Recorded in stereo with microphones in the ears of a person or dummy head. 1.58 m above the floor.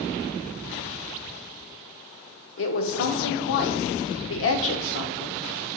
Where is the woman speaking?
75° left (ahead or behind), 0.7 m.